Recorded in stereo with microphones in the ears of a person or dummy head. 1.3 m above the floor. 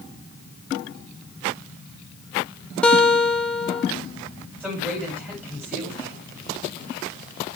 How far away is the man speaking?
About 3.5 m.